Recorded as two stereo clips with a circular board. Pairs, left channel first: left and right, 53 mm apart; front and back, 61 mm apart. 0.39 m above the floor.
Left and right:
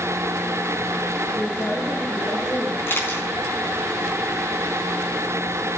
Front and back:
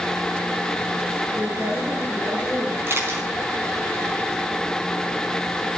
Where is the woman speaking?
110° left, 4.5 m.